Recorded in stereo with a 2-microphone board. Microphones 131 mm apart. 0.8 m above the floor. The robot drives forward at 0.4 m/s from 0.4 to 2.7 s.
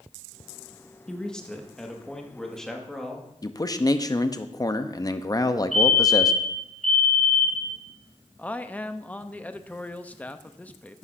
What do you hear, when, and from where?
1.1 s a man speaking: 5° left (ahead or behind), 1.0 m
3.4 s a man speaking: 30° left (ahead or behind), 0.5 m
5.7 s a fire alarm: 65° left (ahead or behind), 5.5 m
8.4 s a man speaking: 10° left (ahead or behind), 0.5 m